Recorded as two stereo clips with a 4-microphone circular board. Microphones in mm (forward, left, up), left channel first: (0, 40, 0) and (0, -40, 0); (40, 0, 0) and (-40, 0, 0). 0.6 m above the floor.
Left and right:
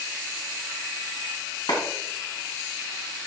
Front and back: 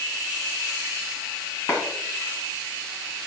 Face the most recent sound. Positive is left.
turn(degrees=55)